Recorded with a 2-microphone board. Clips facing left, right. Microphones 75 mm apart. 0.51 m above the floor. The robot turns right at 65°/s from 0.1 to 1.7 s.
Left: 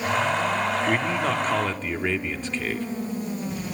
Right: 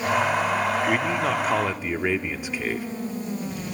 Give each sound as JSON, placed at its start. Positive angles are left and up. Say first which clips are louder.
{"t": 0.9, "sound": "a man speaking", "louder": "right 1 dB", "side_deg": 5, "distance_m": 0.8}